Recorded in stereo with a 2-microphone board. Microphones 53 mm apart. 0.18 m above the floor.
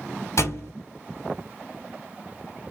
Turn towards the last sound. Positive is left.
turn(degrees=65)  # may be behind; listen again after turning